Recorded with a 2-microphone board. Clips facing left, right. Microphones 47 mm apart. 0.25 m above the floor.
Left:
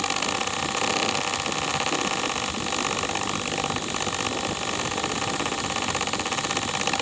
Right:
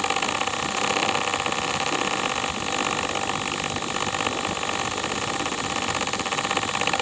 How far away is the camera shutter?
I don't hear a camera shutter.